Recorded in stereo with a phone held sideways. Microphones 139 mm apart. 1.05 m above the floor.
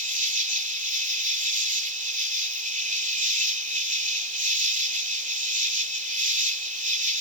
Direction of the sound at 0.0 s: 60° right (ahead or behind).